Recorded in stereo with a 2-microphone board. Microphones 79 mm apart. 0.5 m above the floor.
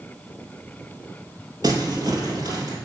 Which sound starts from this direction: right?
Crumpling, at 1.6 s.